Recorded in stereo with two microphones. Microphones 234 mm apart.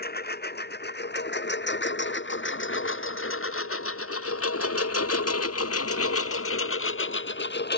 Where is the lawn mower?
45° left (ahead or behind).